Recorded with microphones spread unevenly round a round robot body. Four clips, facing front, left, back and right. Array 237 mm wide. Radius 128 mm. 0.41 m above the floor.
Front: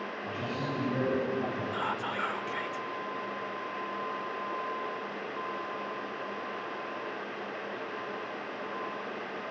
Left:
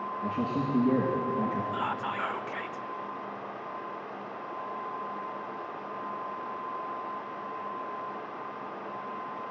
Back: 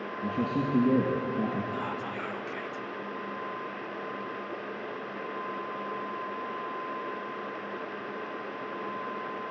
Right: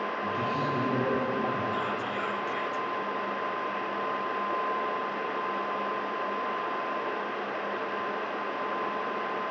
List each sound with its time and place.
0.2 s a man speaking: 175° left, 5 m
1.7 s whispering: 60° left, 1.2 m